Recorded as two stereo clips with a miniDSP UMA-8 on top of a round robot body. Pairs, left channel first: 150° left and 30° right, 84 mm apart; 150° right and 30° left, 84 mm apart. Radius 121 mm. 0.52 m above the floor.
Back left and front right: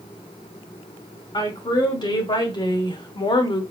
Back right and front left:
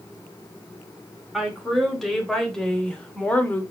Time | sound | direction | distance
1.3 | a woman speaking | 115° left | 4 m